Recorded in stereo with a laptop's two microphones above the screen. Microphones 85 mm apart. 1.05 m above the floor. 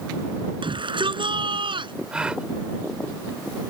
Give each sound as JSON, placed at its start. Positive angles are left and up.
{"t": 0.6, "sound": "a shout", "side_deg": -75}
{"t": 2.1, "sound": "a gasp", "side_deg": -10}